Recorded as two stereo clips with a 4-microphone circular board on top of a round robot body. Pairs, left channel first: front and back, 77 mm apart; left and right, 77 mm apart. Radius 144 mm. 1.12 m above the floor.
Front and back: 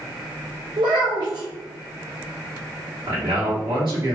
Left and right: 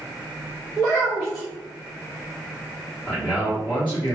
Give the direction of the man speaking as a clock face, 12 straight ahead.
6 o'clock.